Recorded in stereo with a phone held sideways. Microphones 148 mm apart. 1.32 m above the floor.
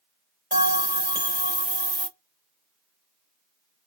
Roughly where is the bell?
Right.